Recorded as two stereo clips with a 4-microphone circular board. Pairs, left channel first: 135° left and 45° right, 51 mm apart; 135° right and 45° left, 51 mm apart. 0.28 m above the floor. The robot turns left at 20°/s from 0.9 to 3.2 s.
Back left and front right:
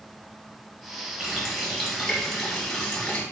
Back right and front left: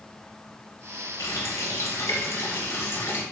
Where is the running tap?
120° right, 1.2 m; by 3.2 s 160° right, 1.2 m.